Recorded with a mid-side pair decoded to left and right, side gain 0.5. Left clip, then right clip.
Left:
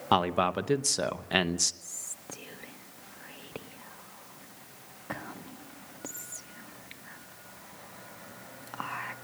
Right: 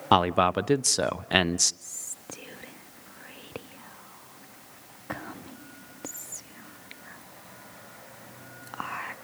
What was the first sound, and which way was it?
A man speaking, 25° right.